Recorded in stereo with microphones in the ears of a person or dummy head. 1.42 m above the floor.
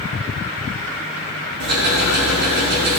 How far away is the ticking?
About 3.5 m.